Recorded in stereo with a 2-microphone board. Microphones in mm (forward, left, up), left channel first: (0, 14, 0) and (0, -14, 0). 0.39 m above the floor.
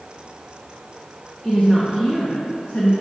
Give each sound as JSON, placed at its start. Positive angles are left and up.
{"t": 1.4, "sound": "a woman speaking", "side_deg": 45, "distance_m": 2.0}